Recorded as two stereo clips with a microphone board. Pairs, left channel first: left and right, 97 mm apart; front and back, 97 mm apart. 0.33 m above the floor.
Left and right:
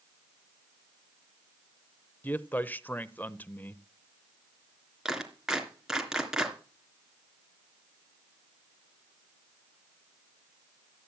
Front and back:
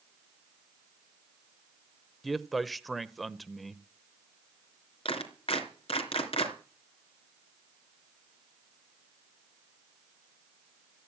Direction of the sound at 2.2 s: 95° left.